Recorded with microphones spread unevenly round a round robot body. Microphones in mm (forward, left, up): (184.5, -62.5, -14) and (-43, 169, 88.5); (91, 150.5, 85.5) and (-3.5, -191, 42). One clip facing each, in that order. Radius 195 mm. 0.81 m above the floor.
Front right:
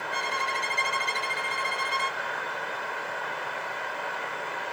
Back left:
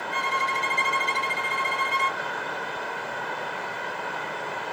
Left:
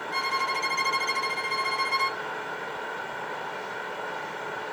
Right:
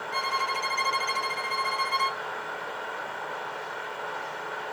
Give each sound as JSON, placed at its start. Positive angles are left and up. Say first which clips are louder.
{"t": 0.1, "sound": "a violin", "louder": "back left 2 dB, right 1 dB", "azimuth_deg": 30, "distance_m": 1.0}